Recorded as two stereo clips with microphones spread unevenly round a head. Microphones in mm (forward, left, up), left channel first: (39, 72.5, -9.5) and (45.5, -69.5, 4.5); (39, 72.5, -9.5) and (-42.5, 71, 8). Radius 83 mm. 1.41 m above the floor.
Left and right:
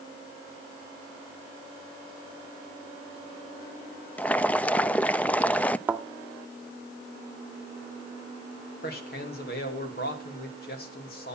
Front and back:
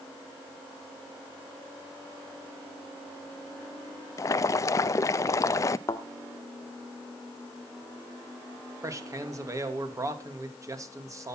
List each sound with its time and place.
4.2 s boiling: 20° left, 0.5 m
5.9 s a thud: 40° right, 1.0 m
8.8 s a man speaking: 130° left, 2.5 m